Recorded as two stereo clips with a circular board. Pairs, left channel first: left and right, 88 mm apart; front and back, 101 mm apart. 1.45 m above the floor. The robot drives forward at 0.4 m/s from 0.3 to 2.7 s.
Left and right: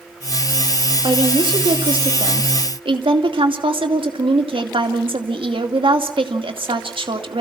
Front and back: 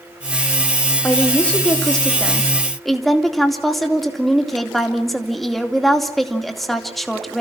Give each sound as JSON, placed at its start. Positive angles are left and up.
{"t": 1.0, "sound": "a woman speaking", "azimuth_deg": -75, "distance_m": 2.5}